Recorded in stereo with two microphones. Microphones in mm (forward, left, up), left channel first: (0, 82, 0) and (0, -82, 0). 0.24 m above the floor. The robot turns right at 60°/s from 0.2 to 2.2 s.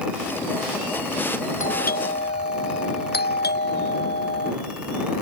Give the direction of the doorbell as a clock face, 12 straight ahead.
10 o'clock.